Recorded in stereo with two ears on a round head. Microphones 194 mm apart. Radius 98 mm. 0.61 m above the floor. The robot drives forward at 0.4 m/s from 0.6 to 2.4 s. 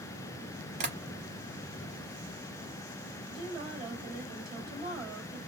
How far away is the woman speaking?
About 2.5 m.